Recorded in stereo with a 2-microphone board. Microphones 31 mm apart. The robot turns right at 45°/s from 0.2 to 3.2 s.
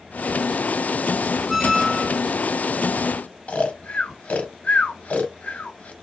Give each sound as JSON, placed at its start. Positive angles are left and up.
{"t": 1.5, "sound": "a squeak", "azimuth_deg": 170, "distance_m": 0.6}
{"t": 3.5, "sound": "snoring", "side_deg": 50, "distance_m": 0.6}